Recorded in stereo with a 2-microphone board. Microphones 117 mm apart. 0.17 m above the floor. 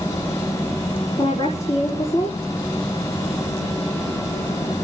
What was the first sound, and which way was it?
A woman speaking, 35° left (ahead or behind).